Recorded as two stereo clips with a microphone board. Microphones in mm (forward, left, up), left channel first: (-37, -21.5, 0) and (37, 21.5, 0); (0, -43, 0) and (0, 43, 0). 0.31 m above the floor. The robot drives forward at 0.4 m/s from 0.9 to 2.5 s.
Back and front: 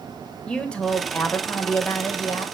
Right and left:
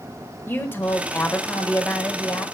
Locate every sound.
0.5 s a woman speaking: 90° right, 1.0 m; by 2.5 s 145° right, 1.2 m